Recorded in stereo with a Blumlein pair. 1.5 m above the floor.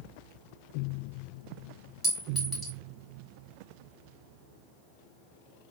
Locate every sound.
2.0 s a clink: 5° right, 3 m